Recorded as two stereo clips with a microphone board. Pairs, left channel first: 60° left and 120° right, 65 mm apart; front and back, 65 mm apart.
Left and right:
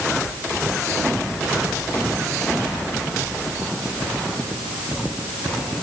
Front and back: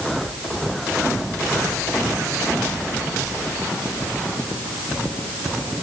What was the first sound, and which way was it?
Only background noise.